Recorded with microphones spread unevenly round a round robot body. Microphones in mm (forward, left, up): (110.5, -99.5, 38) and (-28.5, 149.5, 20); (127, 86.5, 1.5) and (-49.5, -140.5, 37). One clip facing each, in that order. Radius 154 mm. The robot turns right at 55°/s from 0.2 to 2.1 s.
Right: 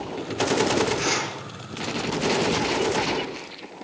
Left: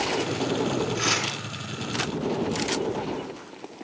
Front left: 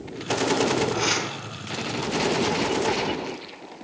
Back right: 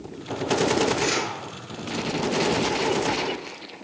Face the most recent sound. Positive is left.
turn(degrees=100)